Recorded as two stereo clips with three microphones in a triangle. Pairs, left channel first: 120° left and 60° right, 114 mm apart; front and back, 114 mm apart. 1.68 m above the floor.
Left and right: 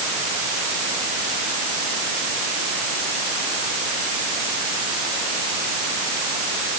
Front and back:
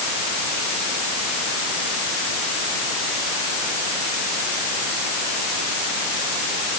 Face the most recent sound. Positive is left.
No sound to turn to.